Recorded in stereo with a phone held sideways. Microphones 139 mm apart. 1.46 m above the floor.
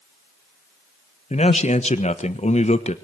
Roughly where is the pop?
No pop in this recording.